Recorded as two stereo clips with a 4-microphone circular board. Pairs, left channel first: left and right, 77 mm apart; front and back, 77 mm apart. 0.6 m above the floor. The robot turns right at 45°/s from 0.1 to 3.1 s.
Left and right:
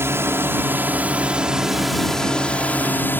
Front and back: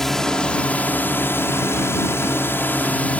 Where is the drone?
80° right; by 3.2 s 55° left.